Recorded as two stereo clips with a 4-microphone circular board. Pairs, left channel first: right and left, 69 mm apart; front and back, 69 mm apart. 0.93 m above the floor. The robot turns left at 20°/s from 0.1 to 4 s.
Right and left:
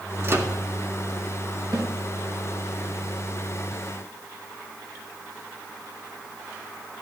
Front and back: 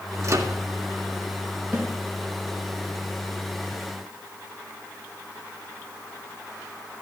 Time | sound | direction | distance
0.2 | a microwave | 140° left | 1.7 m
1.7 | a snare drum | 110° left | 4.5 m